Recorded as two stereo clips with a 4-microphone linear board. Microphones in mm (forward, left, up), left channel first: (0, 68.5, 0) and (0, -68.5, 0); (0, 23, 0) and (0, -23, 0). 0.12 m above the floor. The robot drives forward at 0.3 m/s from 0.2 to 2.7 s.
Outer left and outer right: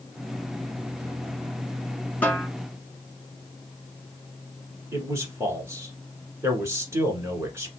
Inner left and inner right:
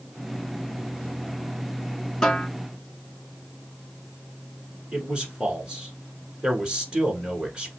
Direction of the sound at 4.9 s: 20° right (ahead or behind).